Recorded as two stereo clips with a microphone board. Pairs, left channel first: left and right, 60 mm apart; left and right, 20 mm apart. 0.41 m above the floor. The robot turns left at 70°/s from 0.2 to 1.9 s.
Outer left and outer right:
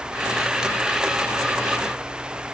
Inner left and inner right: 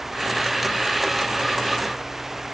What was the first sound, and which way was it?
Only background noise.